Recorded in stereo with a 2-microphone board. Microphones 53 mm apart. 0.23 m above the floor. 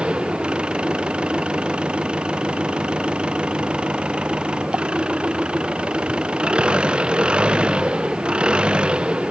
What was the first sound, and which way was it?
An engine running, 20° right (ahead or behind).